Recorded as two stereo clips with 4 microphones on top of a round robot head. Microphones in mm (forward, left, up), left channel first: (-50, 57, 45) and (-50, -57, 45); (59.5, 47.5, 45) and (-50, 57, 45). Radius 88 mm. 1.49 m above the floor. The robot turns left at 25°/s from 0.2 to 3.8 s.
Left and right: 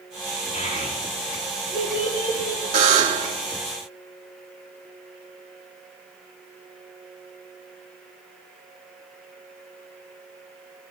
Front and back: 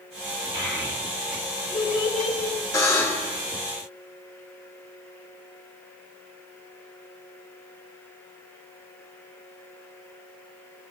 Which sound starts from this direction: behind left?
A child speaking, at 0.5 s.